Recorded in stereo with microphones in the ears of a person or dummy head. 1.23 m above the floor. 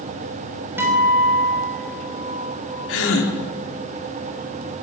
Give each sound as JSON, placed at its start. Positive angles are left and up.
{"t": 0.8, "sound": "a guitar", "side_deg": -5, "distance_m": 4.5}
{"t": 2.9, "sound": "a gasp", "side_deg": 85, "distance_m": 3.0}